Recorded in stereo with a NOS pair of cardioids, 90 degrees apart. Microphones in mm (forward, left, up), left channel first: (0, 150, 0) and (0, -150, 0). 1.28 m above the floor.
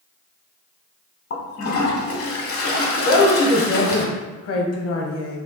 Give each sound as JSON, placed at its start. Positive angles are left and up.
{"t": 1.3, "sound": "a toilet flushing", "azimuth_deg": 45, "distance_m": 1.1}
{"t": 3.0, "sound": "a woman speaking", "azimuth_deg": 50, "distance_m": 1.1}